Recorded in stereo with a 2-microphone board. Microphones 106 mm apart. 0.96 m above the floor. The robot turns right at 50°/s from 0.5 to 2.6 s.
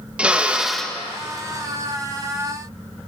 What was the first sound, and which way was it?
A drill, 10° right (ahead or behind).